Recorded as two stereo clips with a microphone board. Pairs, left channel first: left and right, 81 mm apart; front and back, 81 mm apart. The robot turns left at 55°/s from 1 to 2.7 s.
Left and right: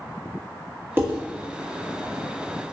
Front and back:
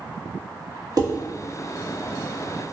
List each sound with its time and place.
1.0 s dishes clattering: 150° right, 1.4 m; by 1.1 s 155° right, 1.4 m